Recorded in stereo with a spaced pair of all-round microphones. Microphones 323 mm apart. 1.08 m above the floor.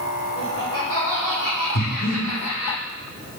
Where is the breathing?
50° left (ahead or behind), 1.7 m.